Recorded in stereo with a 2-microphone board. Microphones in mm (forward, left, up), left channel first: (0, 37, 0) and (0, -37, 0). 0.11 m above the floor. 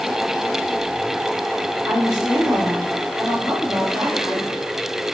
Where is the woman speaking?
10° right (ahead or behind), 3.5 m.